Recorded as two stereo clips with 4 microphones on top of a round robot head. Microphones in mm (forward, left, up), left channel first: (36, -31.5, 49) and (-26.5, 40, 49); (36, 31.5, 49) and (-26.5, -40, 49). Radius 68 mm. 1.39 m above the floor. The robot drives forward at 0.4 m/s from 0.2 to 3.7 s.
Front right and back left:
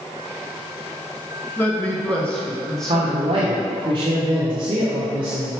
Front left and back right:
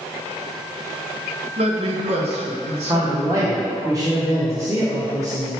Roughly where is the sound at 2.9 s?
Behind.